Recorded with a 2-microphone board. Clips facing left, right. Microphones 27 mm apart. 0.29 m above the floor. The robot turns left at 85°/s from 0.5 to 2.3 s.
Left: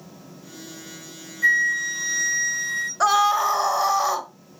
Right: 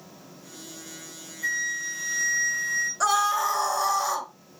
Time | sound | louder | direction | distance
1.4 | a flute | left 9 dB | 115° left | 3 m
3.0 | a scream | left 6 dB | 25° left (ahead or behind) | 0.9 m